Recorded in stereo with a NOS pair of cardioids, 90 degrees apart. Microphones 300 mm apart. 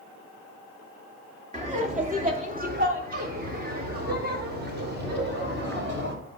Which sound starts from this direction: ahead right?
Laughter, at 1.5 s.